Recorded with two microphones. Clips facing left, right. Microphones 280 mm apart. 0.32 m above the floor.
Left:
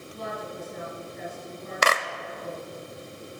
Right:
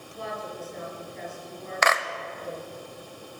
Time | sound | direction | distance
0.1 | a woman speaking | 40° left (ahead or behind) | 6.5 m
1.8 | a clap | 35° left (ahead or behind) | 0.9 m